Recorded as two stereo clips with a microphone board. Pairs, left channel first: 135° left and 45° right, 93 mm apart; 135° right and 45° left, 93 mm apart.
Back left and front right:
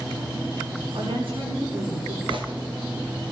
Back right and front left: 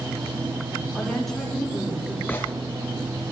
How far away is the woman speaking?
About 7.5 m.